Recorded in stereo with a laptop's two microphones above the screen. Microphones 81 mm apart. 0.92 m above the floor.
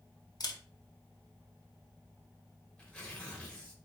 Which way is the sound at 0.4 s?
55° left (ahead or behind).